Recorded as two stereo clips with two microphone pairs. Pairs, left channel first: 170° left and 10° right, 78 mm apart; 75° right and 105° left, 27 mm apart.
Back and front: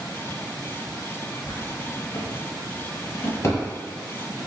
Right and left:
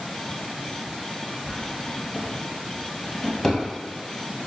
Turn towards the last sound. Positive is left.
turn(degrees=-140)